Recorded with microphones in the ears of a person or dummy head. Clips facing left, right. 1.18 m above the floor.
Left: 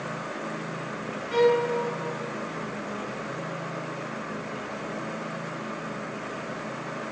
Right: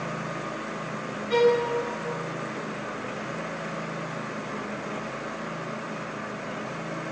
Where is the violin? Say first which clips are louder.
Even; 65° right (ahead or behind), 1.9 m.